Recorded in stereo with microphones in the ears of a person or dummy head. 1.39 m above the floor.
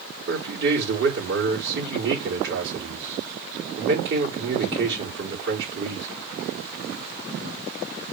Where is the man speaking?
60° right (ahead or behind), 4.5 m.